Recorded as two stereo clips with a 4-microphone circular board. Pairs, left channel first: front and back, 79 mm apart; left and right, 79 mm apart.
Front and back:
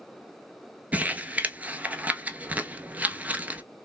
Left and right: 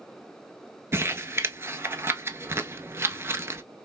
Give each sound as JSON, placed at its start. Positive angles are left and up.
{"t": 0.9, "sound": "crumpling", "azimuth_deg": -125, "distance_m": 0.5}